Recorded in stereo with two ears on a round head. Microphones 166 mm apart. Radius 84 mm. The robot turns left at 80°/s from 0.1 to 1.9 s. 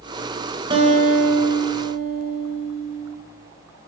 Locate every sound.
0.7 s a guitar: 30° right, 1.7 m; by 3.1 s 125° right, 1.7 m